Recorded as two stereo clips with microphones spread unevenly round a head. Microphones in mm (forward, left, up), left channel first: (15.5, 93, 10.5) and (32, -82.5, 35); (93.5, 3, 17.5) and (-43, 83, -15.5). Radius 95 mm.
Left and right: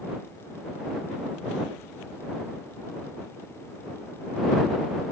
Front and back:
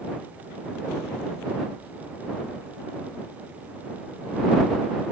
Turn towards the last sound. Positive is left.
No sound to turn to.